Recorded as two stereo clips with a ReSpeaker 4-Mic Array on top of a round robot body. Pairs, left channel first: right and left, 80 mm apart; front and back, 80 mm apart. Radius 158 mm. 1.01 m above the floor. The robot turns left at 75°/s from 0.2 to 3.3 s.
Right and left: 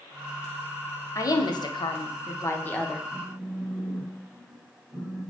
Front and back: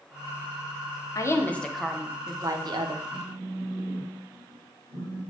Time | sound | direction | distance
1.1 | a woman speaking | 40° right | 0.5 m
3.1 | a phone buzzing | straight behind | 1.6 m